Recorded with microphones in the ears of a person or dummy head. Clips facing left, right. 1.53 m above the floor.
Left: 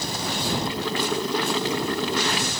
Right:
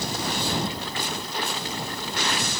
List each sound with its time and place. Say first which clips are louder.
0.7 s boiling: left 6 dB; 55° left (ahead or behind)